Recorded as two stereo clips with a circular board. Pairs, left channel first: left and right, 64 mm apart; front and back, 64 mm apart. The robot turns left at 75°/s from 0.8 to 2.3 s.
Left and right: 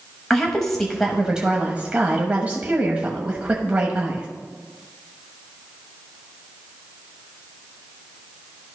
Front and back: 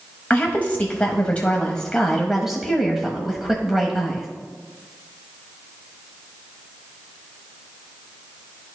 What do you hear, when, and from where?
0.3 s a woman speaking: 15° left, 1.0 m; by 4.3 s 100° right, 1.0 m